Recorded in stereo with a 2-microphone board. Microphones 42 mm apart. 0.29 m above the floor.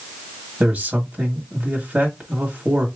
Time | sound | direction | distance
0.6 | a man speaking | 30° right (ahead or behind) | 1.7 m